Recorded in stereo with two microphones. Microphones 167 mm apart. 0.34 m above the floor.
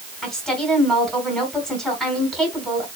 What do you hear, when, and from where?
0.2 s a woman speaking: 5° left (ahead or behind), 3 m